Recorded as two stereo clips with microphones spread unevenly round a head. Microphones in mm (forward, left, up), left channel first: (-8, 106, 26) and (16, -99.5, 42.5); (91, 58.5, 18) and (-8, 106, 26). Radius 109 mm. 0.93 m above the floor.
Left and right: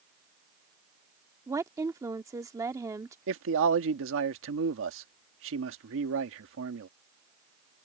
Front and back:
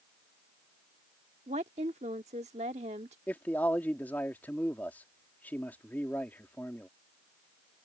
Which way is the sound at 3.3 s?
105° right.